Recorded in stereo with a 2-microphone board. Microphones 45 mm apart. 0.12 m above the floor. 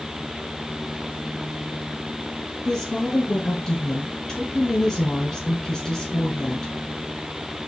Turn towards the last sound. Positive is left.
turn(degrees=15)  # may be behind; listen again after turning